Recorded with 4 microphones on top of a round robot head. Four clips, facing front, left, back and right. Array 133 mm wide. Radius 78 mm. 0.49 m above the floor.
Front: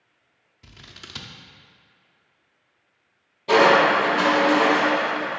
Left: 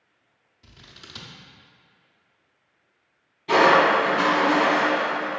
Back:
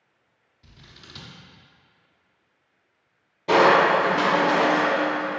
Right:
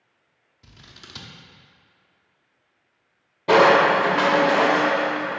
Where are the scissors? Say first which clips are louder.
Right 1 dB, front 4 dB; 15° right, 0.5 m.